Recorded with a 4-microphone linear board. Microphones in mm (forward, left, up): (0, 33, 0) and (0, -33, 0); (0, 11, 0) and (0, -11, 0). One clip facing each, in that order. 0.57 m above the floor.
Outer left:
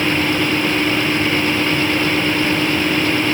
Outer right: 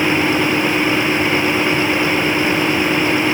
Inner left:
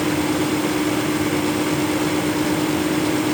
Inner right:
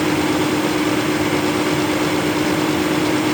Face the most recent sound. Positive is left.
No sound to turn to.